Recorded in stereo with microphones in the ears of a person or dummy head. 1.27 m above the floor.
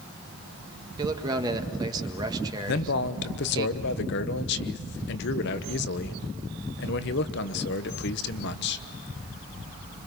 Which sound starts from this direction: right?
A man speaking, at 1.0 s.